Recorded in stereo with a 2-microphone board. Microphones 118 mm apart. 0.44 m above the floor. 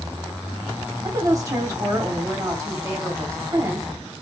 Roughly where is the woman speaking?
Right.